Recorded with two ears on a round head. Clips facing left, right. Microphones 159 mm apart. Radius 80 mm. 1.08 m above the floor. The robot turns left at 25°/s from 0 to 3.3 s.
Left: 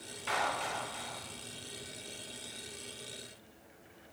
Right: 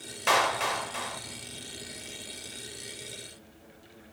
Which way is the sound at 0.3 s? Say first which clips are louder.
Right 8 dB; 70° right (ahead or behind).